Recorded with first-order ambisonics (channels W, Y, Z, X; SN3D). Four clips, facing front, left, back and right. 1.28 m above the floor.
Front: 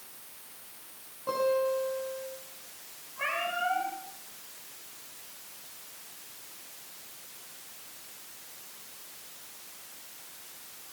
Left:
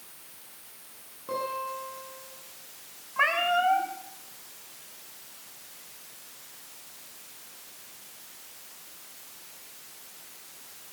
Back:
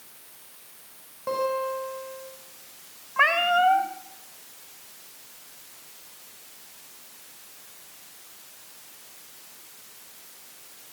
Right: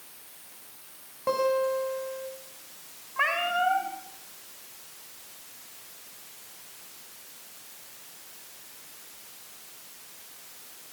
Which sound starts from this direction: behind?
A cat meowing, at 3.2 s.